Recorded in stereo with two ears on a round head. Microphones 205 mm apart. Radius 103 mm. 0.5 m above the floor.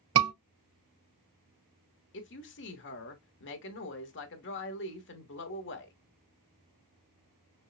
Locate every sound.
0.1 s a scream: 70° right (ahead or behind), 2.5 m
2.1 s a woman speaking: 55° left (ahead or behind), 1.1 m